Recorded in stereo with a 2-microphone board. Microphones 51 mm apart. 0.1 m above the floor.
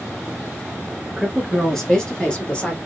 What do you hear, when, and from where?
1.2 s a woman speaking: 5° right (ahead or behind), 1.3 m; by 2.8 s 25° left (ahead or behind), 1.5 m